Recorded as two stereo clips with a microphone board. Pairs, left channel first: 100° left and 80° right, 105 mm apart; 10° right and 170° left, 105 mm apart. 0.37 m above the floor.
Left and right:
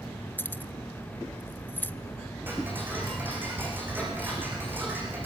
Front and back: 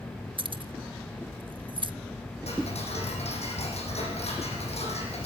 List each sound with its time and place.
0.4 s keys jangling: 160° left, 0.7 m
2.5 s ticking: 5° right, 5.5 m